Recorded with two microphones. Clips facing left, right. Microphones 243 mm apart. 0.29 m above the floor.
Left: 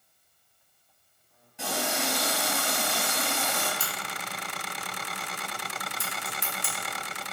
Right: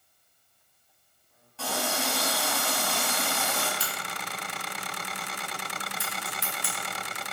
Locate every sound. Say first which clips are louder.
1.6 s a running tap: even; 15° left (ahead or behind), 1.7 m
3.8 s a crack: even; 50° left (ahead or behind), 1.3 m